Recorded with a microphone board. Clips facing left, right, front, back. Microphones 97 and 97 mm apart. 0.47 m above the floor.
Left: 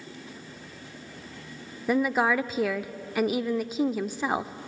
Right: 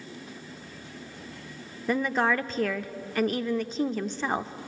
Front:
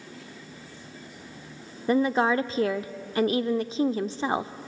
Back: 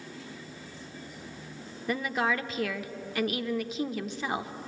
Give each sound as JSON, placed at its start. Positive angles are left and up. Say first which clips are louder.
{"t": 1.9, "sound": "a woman speaking", "louder": "left 2 dB, front 7 dB", "azimuth_deg": 15, "distance_m": 0.8}